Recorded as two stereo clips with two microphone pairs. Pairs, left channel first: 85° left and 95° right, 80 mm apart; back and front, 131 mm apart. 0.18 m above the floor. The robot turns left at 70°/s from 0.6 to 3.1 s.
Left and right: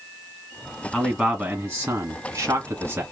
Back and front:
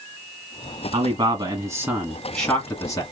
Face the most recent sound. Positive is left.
turn(degrees=-145)